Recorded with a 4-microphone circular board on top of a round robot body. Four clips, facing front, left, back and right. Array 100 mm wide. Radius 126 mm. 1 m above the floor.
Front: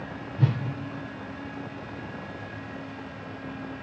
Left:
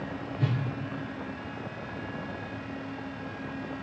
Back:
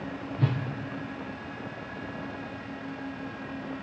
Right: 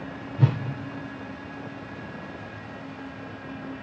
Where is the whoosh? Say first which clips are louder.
Right 7 dB, front 3 dB; 75° right, 1.1 m.